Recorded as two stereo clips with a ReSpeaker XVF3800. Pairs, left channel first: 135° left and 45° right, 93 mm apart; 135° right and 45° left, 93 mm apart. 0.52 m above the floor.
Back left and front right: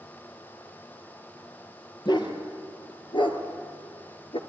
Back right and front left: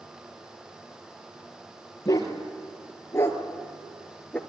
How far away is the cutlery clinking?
I don't hear cutlery clinking.